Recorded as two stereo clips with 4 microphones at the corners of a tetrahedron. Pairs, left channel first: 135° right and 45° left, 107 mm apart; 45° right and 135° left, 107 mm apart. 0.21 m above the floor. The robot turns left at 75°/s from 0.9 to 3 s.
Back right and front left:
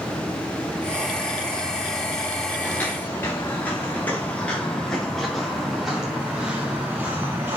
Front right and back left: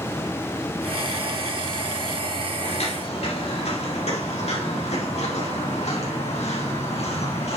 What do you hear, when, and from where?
2.6 s footsteps: 45° right, 3 m; by 7.6 s 25° right, 3 m